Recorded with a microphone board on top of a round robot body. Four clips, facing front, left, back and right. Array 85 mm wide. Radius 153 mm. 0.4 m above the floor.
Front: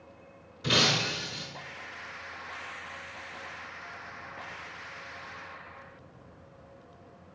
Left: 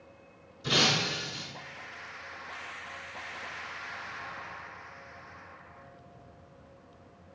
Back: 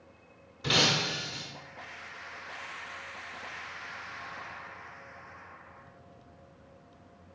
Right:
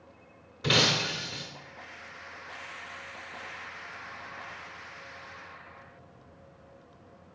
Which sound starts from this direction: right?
Breaking glass, at 0.6 s.